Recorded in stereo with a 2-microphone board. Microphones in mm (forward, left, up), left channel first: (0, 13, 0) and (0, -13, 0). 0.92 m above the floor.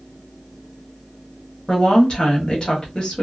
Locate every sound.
1.7 s a woman speaking: 35° left (ahead or behind), 1.3 m